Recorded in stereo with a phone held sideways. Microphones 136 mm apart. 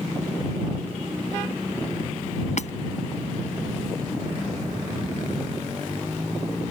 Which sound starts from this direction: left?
Hammering, at 2.6 s.